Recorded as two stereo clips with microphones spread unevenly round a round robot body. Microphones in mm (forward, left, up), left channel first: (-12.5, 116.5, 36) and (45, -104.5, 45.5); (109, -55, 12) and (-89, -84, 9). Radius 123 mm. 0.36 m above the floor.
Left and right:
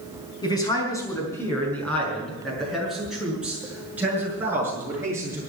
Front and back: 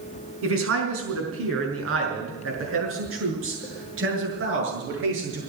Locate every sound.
0.4 s a man speaking: 175° left, 5 m; by 5.4 s 155° right, 8 m